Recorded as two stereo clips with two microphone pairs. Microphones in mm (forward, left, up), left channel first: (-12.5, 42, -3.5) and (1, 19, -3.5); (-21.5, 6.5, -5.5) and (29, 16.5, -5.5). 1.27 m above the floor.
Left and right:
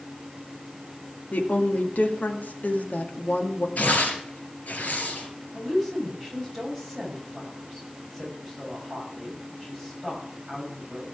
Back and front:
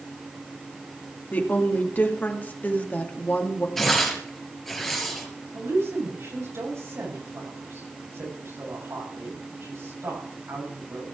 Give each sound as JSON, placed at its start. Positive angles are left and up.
{"t": 1.3, "sound": "a woman speaking", "azimuth_deg": 135, "distance_m": 2.0}
{"t": 3.8, "sound": "tearing paper", "azimuth_deg": 105, "distance_m": 3.5}
{"t": 5.5, "sound": "a woman speaking", "azimuth_deg": 40, "distance_m": 7.0}